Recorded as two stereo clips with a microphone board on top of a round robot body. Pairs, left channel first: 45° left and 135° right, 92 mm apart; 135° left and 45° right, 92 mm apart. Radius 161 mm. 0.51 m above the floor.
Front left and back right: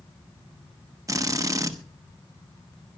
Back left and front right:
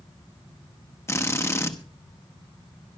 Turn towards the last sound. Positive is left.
turn(degrees=-175)